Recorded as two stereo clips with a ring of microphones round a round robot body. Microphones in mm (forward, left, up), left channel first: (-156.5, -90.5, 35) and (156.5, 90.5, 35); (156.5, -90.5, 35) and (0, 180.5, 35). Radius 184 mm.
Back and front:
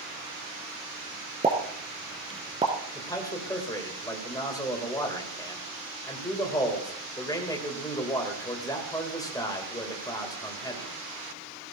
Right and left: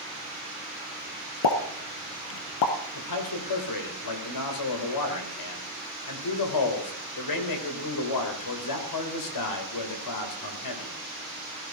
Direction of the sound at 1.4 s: 45° right.